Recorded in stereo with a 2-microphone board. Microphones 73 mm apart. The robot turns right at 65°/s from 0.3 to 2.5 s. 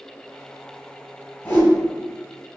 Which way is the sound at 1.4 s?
25° left (ahead or behind).